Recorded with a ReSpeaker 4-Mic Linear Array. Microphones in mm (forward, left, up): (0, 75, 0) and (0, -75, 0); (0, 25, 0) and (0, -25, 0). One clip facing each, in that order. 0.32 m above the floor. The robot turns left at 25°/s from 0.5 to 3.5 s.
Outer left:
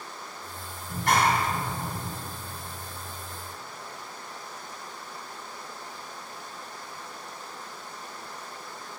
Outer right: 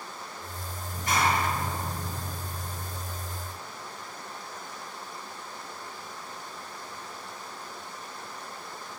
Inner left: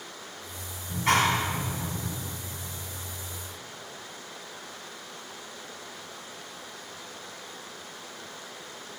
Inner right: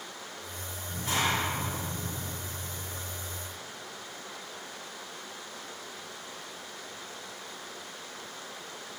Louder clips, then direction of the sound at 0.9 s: Outer left 3 dB, inner left 6 dB; 80° left.